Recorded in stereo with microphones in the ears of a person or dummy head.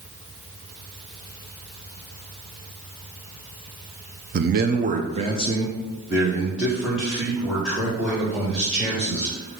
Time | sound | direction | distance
4.3 | a man speaking | 45° right (ahead or behind) | 0.6 m